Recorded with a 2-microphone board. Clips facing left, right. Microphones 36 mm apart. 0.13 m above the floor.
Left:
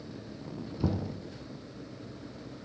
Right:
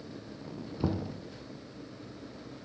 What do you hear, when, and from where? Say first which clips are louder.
0.8 s knocking: even; 15° right (ahead or behind), 0.8 m